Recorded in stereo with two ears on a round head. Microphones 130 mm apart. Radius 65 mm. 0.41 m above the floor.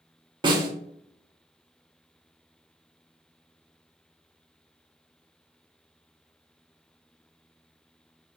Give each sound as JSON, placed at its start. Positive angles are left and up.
{"t": 0.4, "sound": "a snare drum", "side_deg": -35, "distance_m": 1.1}